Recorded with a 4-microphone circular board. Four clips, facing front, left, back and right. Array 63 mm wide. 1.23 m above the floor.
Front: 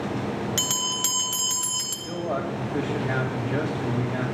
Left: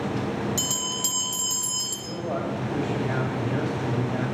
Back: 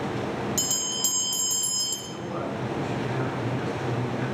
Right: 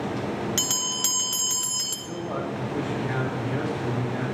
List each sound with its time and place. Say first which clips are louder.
0.6 s a bell: even, front 3 dB; 35° right, 1.4 m
2.0 s a man speaking: left 1 dB, front 4 dB; 20° left, 3 m